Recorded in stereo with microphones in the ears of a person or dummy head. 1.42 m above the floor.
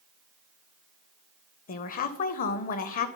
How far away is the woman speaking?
About 0.7 m.